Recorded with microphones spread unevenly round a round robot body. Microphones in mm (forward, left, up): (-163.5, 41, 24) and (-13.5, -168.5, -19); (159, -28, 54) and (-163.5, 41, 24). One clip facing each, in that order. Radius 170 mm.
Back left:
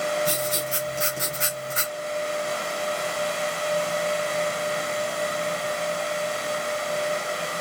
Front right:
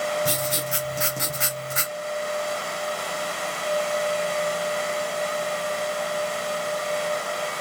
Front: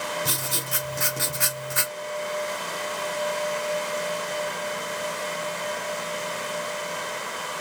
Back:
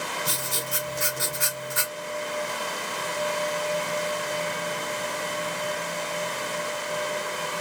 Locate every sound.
0.2 s writing: 25° right, 0.6 m